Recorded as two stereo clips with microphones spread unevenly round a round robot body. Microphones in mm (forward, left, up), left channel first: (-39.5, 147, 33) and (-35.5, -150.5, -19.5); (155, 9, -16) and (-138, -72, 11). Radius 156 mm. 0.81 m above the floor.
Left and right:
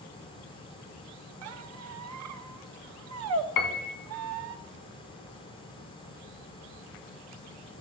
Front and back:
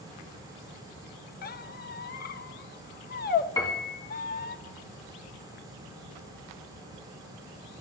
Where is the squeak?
45° right, 0.7 m.